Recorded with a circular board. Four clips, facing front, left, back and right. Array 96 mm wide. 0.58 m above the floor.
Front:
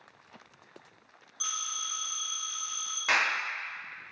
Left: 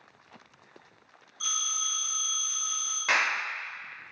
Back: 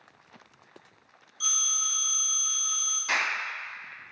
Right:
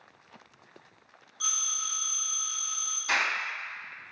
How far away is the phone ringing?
About 1.2 m.